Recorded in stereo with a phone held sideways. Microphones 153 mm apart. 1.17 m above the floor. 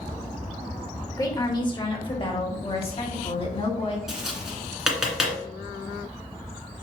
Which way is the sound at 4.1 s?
5° right (ahead or behind).